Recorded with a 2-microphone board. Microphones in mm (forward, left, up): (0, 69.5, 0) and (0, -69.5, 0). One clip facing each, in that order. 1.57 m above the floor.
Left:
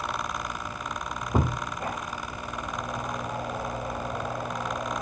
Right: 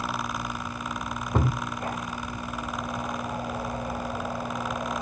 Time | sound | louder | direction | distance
1.3 | a thud | even | 10° left (ahead or behind) | 1.7 m